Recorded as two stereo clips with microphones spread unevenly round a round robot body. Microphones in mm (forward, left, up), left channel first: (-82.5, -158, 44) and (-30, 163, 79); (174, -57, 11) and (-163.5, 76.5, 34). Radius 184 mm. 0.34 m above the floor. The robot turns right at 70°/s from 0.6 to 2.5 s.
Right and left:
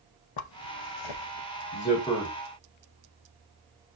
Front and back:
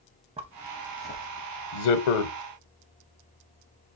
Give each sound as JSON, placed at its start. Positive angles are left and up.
{"t": 0.4, "sound": "a zipper", "azimuth_deg": -125, "distance_m": 0.5}